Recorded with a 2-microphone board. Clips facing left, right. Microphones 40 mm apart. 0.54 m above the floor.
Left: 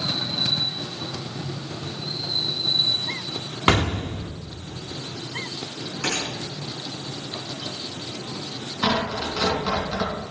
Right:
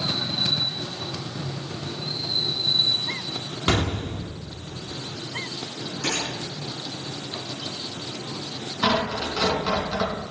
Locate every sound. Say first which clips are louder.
3.7 s an explosion: left 4 dB; 35° left (ahead or behind), 0.8 m
6.0 s a gunshot: left 1 dB; 60° left (ahead or behind), 5 m
8.8 s tearing paper: right 1 dB; 5° right (ahead or behind), 3.5 m